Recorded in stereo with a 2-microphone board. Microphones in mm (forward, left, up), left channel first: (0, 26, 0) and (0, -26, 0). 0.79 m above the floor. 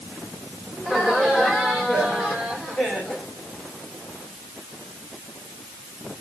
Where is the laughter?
15° left (ahead or behind), 3 m; by 3.3 s 30° left (ahead or behind), 4.5 m.